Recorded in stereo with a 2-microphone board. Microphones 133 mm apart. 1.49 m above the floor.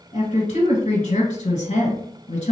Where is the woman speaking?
55° left (ahead or behind), 1.6 m.